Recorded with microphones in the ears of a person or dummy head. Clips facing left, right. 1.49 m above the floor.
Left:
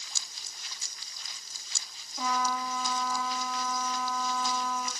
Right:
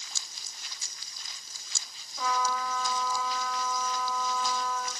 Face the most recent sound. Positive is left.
turn(degrees=15)  # may be behind; listen again after turning